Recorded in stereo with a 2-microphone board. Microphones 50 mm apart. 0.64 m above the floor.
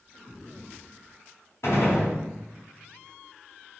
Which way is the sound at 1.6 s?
75° left (ahead or behind).